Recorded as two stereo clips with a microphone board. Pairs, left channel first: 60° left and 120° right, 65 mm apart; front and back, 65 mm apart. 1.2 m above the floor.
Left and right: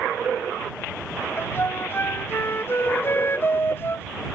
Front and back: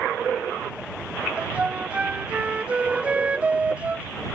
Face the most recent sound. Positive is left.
turn(degrees=110)